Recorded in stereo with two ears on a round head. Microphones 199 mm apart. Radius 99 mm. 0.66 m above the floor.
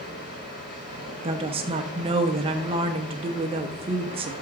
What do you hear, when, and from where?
0.0 s running water: 40° left (ahead or behind), 6.5 m
1.2 s a woman speaking: 25° right (ahead or behind), 0.8 m